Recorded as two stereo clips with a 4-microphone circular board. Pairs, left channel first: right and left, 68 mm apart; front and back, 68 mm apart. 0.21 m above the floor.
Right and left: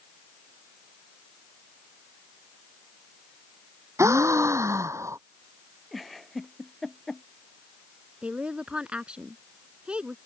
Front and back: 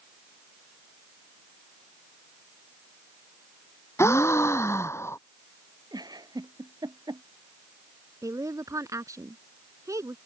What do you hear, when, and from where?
4.0 s a gasp: 45° left
5.9 s a giggle: straight behind
8.2 s a woman speaking: 160° left